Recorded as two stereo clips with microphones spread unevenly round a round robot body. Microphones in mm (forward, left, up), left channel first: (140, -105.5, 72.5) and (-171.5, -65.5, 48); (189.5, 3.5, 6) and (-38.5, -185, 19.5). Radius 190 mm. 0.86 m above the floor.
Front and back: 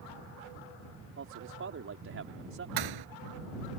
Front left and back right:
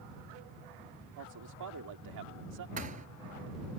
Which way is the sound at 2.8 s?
150° left.